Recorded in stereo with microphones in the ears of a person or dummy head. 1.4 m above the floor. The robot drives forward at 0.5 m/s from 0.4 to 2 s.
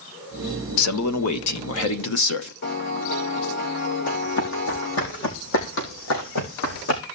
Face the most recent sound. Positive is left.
turn(degrees=70)  # may be behind; listen again after turning